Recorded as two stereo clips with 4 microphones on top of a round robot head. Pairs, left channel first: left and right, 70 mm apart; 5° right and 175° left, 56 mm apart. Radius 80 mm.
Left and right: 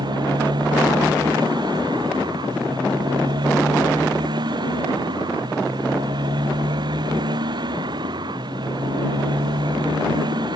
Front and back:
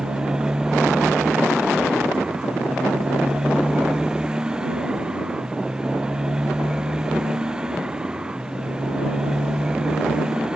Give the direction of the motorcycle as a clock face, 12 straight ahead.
3 o'clock.